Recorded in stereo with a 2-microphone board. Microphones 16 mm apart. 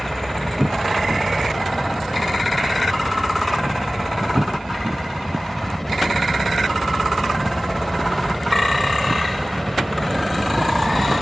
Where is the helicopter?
10° left (ahead or behind).